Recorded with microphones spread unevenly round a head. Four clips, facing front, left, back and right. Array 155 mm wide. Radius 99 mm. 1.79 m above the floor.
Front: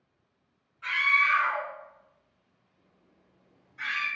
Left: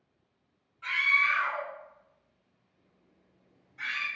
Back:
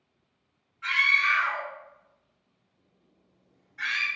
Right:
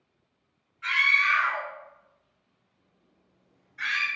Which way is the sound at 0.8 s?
70° left.